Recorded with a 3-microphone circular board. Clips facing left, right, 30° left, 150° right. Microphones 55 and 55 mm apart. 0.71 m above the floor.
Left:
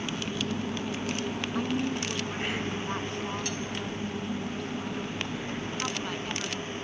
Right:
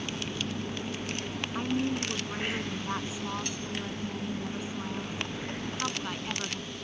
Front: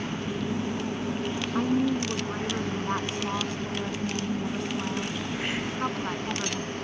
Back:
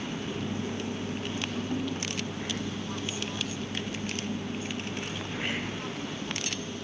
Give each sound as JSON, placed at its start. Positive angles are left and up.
{"t": 1.6, "sound": "a woman speaking", "azimuth_deg": -5}